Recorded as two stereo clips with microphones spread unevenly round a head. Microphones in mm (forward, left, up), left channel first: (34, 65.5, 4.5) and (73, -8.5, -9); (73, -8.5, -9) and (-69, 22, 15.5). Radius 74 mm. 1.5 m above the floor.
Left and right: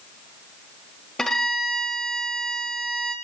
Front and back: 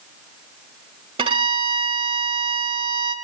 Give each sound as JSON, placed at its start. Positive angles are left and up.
{"t": 1.2, "sound": "a violin", "azimuth_deg": -170, "distance_m": 1.6}